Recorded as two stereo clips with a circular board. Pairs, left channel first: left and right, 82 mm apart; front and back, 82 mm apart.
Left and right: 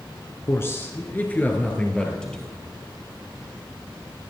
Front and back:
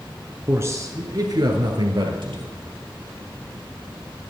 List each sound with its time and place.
0.5 s a man speaking: 130° left, 1.5 m; by 2.5 s 170° left, 3 m